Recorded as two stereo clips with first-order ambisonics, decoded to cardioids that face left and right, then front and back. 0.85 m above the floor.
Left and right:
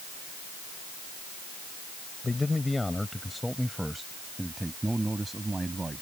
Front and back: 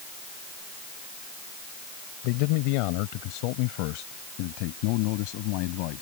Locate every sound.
2.2 s a man speaking: 10° left; by 6.0 s 10° right